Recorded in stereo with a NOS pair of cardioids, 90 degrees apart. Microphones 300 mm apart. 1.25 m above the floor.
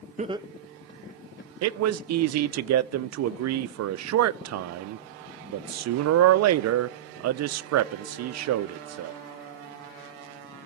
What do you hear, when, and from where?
0.2 s laughter: 25° right, 1.0 m; by 1.5 s 35° left, 1.8 m
1.6 s a man speaking: 60° right, 0.6 m